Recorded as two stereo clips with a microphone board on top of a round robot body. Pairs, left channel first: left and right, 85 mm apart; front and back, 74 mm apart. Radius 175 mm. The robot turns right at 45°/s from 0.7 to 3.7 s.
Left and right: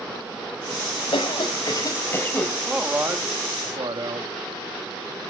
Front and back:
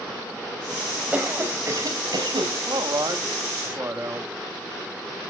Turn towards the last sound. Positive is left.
turn(degrees=-125)